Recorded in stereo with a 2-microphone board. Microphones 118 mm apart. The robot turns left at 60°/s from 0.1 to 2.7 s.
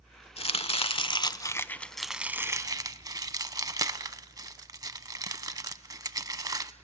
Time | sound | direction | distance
0.4 | chopping | 55° left (ahead or behind) | 0.6 m